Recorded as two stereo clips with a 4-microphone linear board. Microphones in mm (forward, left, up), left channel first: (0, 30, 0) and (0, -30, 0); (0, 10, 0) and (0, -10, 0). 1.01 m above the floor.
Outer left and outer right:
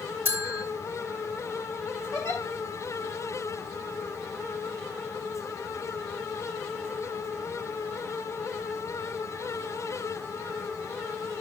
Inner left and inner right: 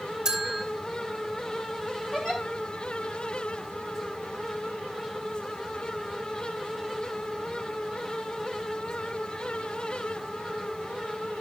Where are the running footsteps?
No running footsteps in this recording.